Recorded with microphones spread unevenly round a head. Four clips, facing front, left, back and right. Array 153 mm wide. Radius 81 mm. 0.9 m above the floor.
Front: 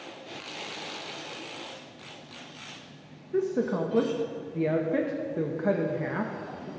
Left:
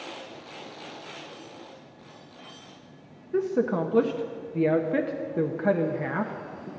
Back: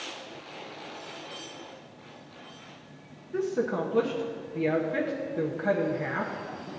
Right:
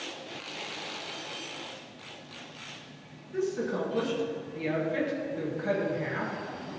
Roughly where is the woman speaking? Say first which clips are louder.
Left 5 dB, front 1 dB; left.